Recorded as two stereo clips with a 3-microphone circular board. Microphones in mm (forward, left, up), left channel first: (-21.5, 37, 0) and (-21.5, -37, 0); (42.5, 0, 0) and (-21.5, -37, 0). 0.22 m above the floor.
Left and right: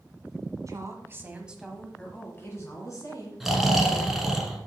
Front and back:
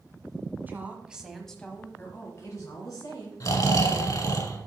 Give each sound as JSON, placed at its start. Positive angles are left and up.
{"t": 0.7, "sound": "a woman speaking", "azimuth_deg": -95, "distance_m": 1.4}
{"t": 3.4, "sound": "snoring", "azimuth_deg": -5, "distance_m": 1.0}